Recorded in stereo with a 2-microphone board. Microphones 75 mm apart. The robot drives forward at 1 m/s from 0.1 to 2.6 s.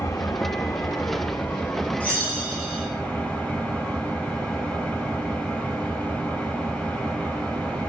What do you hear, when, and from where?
0.0 s an engine running: 50° left (ahead or behind), 1.0 m; by 7.9 s 20° left (ahead or behind), 2.5 m
2.0 s a bell: 20° left (ahead or behind), 8.5 m